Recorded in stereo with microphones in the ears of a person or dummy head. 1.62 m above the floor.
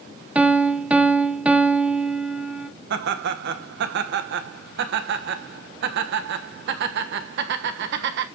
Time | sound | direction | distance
0.3 | a piano | 10° right (ahead or behind) | 1.5 m
2.9 | laughter | 60° right (ahead or behind) | 1.3 m